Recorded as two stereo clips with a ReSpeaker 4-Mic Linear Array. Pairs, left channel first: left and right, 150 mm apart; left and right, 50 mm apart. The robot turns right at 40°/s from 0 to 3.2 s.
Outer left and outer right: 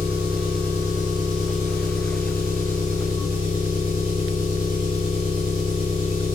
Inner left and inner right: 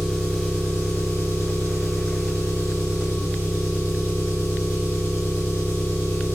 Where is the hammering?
I don't hear hammering.